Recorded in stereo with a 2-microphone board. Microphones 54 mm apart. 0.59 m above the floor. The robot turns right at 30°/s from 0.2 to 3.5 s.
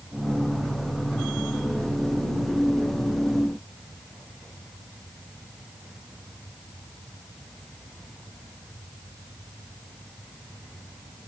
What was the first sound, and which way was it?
Only background noise.